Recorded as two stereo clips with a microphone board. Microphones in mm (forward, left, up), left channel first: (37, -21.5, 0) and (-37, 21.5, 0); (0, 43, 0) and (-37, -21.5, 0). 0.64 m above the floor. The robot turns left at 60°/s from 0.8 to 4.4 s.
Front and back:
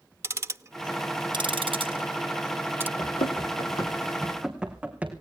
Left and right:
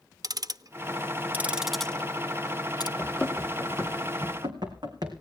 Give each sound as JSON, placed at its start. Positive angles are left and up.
{"t": 0.2, "sound": "ticking", "azimuth_deg": -155, "distance_m": 0.5}
{"t": 3.0, "sound": "running footsteps", "azimuth_deg": 0, "distance_m": 1.7}